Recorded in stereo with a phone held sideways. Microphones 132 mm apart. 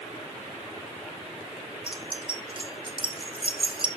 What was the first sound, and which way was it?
Keys jangling, 40° right (ahead or behind).